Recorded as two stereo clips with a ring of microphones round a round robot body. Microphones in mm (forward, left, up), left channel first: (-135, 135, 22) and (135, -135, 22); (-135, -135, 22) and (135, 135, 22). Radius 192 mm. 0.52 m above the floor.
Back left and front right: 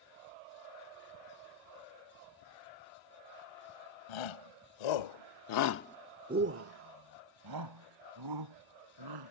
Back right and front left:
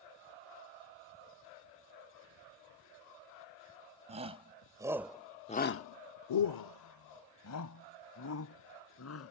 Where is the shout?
120° left; by 9.3 s 80° right.